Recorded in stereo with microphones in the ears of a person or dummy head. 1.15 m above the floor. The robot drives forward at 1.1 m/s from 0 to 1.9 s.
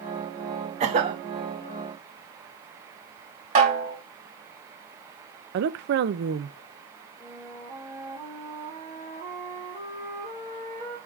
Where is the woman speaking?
55° right (ahead or behind), 0.7 m.